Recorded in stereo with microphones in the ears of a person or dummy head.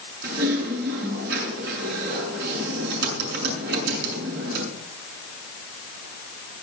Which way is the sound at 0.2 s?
70° right (ahead or behind).